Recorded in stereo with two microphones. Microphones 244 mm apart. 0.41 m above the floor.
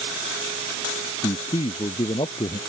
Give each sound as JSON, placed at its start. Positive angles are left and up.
{"t": 1.2, "sound": "a man speaking", "side_deg": 20}